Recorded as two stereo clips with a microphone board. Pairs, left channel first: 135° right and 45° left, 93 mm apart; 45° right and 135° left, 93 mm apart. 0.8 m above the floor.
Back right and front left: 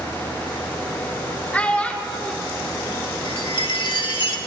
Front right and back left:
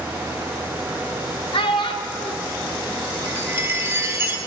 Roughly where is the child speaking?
Ahead right.